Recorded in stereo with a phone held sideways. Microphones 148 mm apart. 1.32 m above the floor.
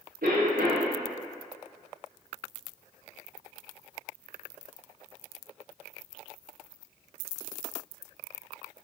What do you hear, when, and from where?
0.2 s a cough: 85° right, 0.6 m